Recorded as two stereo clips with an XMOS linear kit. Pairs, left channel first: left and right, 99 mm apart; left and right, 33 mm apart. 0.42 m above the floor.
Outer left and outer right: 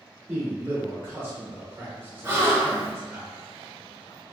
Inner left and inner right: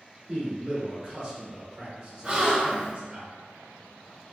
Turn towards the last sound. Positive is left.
turn(degrees=-25)  # may be behind; listen again after turning